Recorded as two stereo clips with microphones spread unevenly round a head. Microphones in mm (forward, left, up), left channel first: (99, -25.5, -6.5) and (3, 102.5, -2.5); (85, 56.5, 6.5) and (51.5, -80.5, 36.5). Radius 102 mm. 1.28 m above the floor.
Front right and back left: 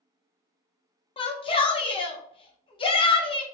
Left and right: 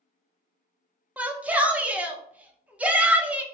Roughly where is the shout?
Ahead.